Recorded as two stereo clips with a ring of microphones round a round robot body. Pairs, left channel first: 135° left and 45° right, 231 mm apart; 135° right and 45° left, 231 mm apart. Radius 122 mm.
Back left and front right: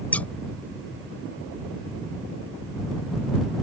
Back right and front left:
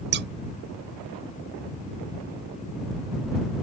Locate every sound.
0.1 s scissors: 55° left